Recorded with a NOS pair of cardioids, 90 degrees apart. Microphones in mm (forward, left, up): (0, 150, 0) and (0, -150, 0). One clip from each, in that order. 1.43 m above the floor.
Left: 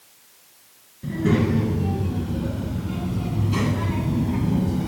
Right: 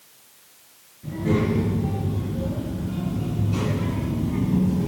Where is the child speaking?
65° left, 6 m; by 4.9 s 40° left, 2 m.